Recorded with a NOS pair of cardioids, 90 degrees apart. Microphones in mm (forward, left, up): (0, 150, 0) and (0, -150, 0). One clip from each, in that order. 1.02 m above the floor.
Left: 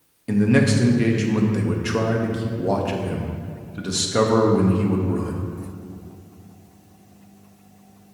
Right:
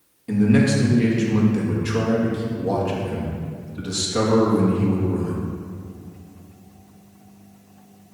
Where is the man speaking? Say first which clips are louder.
Even; 25° left, 1.1 m.